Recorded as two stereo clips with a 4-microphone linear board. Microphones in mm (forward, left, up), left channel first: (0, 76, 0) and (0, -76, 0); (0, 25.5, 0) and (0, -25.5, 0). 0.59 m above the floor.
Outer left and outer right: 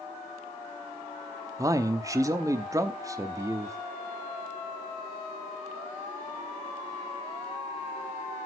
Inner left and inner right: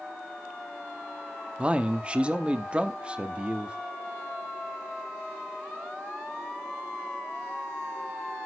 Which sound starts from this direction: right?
A man speaking, at 1.6 s.